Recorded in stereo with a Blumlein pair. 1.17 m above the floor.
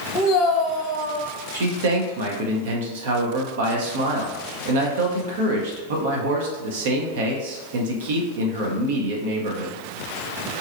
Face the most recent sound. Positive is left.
turn(degrees=-55)